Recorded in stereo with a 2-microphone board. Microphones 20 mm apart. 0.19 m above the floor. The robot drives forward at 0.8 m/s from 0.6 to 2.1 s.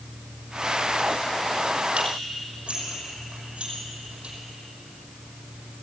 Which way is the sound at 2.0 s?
55° right (ahead or behind).